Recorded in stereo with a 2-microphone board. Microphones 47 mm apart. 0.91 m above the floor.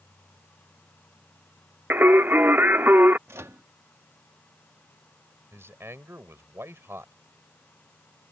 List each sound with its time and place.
1.9 s singing: 50° right (ahead or behind)
3.3 s a microwave: 75° right (ahead or behind)
5.5 s a man speaking: 65° right (ahead or behind)